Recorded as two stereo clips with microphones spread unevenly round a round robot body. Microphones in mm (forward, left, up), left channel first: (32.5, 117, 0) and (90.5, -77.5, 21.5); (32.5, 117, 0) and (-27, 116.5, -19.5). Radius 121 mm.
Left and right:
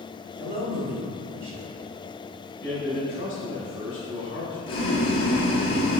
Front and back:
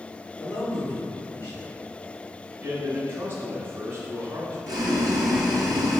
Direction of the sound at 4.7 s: 175° left.